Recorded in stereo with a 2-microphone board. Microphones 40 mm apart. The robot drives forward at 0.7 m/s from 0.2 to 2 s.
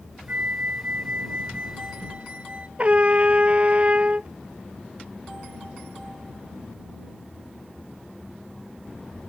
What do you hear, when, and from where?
0.3 s a flute: 45° right (ahead or behind); by 2.7 s 35° right (ahead or behind)
2.8 s a trumpet: 35° right (ahead or behind)